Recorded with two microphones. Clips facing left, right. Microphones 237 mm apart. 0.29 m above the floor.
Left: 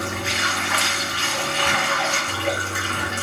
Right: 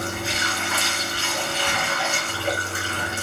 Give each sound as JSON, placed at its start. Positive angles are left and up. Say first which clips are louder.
{"t": 0.0, "sound": "running water", "louder": "left 1 dB", "side_deg": 70, "distance_m": 2.5}